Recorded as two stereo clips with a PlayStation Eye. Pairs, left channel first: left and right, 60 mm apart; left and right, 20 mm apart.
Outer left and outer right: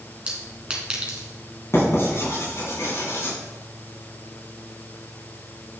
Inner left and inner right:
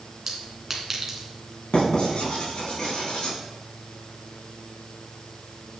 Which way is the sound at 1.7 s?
50° left (ahead or behind).